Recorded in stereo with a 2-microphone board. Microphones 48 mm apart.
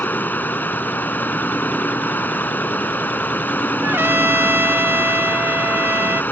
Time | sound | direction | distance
0.0 | running water | 40° left (ahead or behind) | ?
3.8 | a trumpet | 55° right (ahead or behind) | ?